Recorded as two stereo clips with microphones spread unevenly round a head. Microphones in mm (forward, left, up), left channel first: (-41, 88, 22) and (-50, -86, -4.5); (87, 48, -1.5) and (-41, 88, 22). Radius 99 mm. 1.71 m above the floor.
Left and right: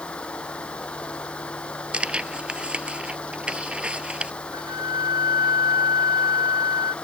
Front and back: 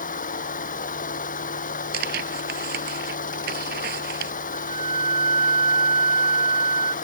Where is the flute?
120° left.